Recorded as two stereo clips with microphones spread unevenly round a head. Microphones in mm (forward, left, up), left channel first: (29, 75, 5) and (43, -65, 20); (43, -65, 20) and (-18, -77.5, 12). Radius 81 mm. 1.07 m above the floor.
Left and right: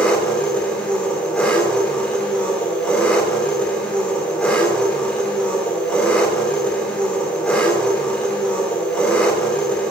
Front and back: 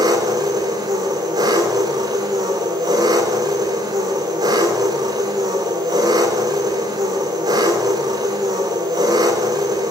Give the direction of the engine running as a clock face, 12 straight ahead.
6 o'clock.